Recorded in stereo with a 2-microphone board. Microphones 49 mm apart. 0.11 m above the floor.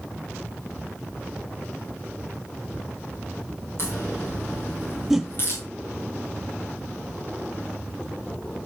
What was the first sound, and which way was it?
A crack, 45° left (ahead or behind).